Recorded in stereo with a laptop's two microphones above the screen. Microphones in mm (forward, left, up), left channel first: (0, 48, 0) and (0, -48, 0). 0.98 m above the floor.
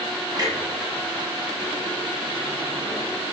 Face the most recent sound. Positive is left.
turn(degrees=-40)  # may be behind; listen again after turning